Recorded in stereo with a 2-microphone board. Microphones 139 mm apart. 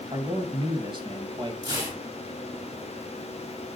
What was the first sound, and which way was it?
A man speaking, 35° right (ahead or behind).